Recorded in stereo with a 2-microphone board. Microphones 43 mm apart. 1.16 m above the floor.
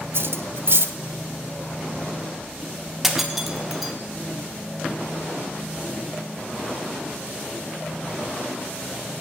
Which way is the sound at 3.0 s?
5° right (ahead or behind).